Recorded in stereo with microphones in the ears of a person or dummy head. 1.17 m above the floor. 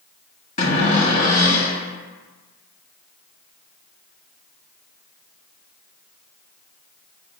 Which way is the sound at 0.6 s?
40° left (ahead or behind).